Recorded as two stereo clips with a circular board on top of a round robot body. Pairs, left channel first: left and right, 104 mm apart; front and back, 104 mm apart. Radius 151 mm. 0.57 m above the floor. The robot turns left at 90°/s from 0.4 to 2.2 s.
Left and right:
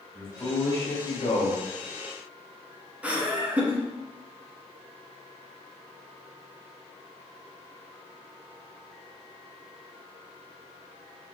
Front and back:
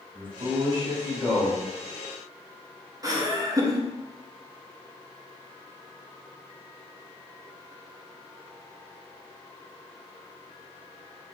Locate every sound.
0.1 s a man speaking: 175° left, 1.3 m; by 1.6 s 65° left, 1.3 m
3.0 s laughter: 155° right, 1.2 m